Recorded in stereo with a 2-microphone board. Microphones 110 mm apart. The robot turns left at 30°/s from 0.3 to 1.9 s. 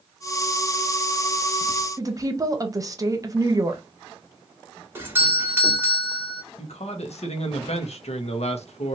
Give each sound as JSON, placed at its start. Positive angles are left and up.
{"t": 2.0, "sound": "a woman speaking", "side_deg": -30, "distance_m": 0.8}
{"t": 5.0, "sound": "a doorbell", "side_deg": -20, "distance_m": 1.3}
{"t": 6.6, "sound": "a man speaking", "side_deg": 75, "distance_m": 0.9}